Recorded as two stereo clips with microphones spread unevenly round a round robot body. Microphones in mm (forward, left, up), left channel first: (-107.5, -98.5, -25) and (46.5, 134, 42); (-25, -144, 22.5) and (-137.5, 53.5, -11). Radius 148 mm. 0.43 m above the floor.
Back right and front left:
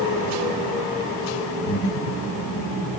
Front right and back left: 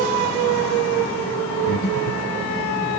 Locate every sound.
1.7 s breathing: 110° right, 1.2 m